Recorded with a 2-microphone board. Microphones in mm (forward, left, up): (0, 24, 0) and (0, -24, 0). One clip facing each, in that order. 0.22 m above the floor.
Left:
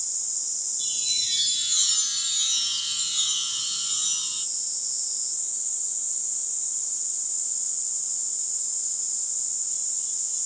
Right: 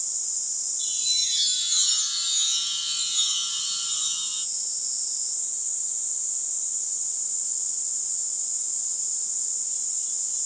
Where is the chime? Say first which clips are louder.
Right 1 dB; 40° left (ahead or behind), 5.5 m.